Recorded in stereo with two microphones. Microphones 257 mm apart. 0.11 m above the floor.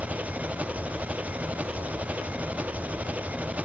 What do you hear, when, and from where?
0.0 s an engine running: 5° right (ahead or behind)